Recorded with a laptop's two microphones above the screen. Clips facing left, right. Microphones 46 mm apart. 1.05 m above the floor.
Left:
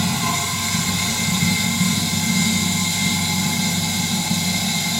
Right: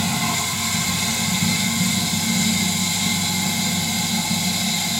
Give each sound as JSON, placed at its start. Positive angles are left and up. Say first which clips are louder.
{"t": 0.0, "sound": "running water", "louder": "left 1 dB", "side_deg": -5, "distance_m": 1.1}